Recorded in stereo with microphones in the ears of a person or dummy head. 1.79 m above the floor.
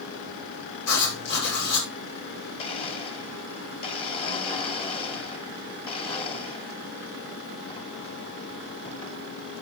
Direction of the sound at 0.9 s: 55° left (ahead or behind).